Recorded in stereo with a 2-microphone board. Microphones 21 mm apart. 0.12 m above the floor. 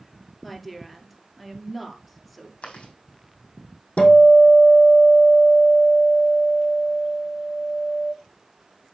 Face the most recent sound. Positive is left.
turn(degrees=80)